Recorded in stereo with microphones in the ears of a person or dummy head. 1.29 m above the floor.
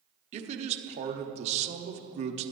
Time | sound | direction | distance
0.3 | a man speaking | 40° right (ahead or behind) | 0.9 m